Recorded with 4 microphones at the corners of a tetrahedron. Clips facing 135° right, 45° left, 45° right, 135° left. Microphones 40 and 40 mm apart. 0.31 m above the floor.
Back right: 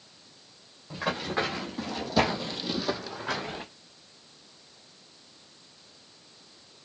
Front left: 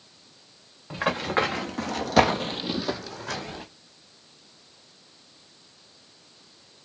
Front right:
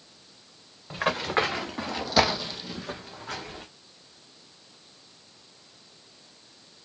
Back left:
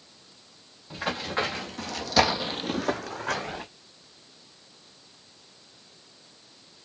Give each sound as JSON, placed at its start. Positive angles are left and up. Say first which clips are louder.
{"t": 0.9, "sound": "running footsteps", "louder": "front left 5 dB, front right 4 dB", "azimuth_deg": 10, "distance_m": 1.9}